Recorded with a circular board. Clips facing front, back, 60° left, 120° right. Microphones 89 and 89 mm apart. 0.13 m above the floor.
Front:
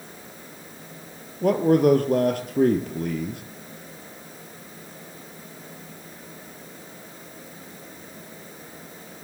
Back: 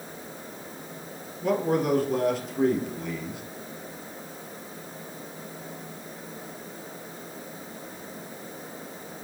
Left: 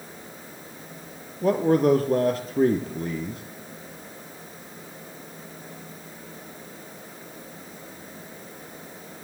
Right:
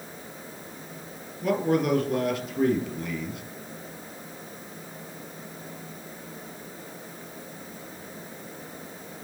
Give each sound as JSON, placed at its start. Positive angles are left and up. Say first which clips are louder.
{"t": 1.4, "sound": "a man speaking", "louder": "front 7 dB, left 4 dB", "azimuth_deg": 15, "distance_m": 2.5}